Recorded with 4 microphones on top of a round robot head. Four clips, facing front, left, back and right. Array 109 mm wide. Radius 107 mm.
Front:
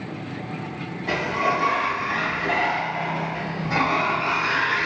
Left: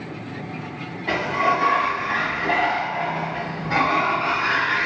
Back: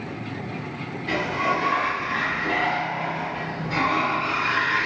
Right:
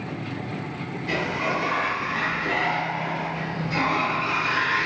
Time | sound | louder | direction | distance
1.1 | a sliding door | left 6 dB, front 1 dB | 65° left | 1.0 m